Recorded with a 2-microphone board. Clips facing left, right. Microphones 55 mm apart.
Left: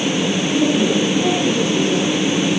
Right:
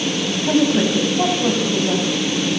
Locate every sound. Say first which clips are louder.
0.4 s a woman speaking: right 2 dB; 70° right (ahead or behind), 8 m